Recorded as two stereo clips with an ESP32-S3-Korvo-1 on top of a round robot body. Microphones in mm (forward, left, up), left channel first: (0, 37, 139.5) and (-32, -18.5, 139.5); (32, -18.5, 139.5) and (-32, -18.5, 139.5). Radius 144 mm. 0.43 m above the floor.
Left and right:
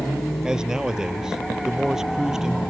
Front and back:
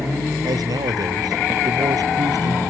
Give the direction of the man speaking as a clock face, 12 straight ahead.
7 o'clock.